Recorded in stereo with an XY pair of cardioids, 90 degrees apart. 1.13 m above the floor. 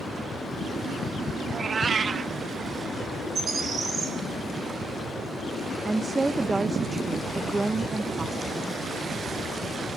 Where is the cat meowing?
45° right, 0.9 m.